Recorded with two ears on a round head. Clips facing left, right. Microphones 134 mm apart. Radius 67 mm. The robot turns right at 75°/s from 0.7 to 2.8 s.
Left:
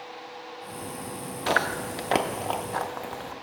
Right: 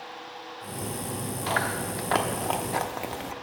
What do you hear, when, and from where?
1.5 s chewing: 65° left (ahead or behind), 0.6 m; by 3.3 s 25° right (ahead or behind), 0.6 m